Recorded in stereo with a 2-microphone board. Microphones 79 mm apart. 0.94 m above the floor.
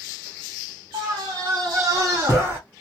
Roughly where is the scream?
Right.